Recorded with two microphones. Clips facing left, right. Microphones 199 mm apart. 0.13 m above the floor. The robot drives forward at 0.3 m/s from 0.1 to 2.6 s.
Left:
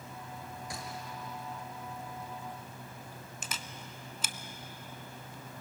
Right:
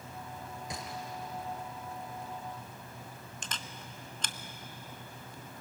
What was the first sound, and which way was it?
A gunshot, 20° right (ahead or behind).